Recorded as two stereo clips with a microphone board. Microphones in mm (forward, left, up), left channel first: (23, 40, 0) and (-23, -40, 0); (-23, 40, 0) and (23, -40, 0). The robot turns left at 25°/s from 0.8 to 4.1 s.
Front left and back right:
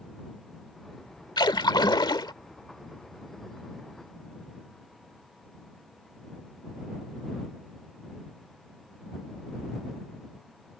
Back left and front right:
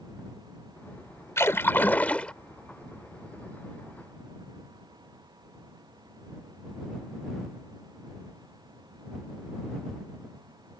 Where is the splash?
70° left; by 2.3 s 45° left.